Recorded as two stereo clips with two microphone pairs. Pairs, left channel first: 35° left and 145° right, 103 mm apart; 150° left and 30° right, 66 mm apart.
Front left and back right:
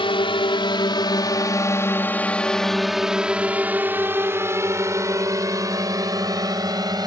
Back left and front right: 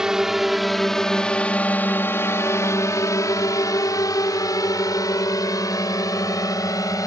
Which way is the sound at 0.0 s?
45° left.